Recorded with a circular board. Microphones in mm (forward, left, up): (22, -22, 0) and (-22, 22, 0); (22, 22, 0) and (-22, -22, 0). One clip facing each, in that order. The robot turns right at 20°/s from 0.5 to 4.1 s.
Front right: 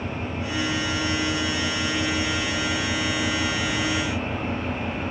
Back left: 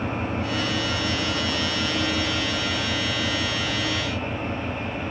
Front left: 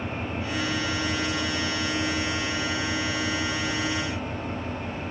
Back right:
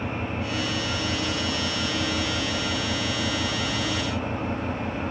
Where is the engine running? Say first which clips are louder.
Back left 3 dB, back right 2 dB; 165° left, 5.5 m; by 5.1 s 125° right, 5.5 m.